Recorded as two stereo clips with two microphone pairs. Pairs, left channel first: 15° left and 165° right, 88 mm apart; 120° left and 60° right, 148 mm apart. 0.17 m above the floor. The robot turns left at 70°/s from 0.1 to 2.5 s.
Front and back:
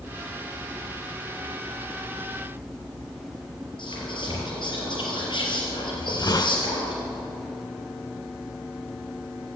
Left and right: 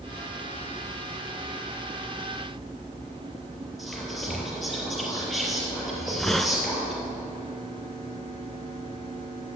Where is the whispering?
30° left, 4.5 m.